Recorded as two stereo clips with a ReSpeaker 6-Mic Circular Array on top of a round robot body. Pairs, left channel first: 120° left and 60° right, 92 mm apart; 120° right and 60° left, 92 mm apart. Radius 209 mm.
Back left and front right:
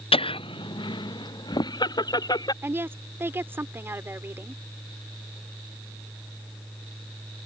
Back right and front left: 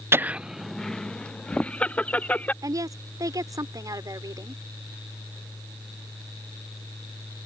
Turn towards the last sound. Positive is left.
turn(degrees=10)